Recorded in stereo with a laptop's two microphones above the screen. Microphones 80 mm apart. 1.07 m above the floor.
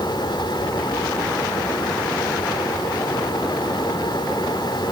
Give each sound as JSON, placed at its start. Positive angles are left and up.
{"t": 0.0, "sound": "a fan", "side_deg": 75, "distance_m": 3.5}